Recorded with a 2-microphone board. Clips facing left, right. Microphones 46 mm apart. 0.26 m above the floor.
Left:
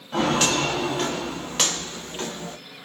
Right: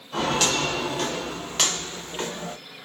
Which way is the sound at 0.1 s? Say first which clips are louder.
Left 2 dB; 30° left (ahead or behind).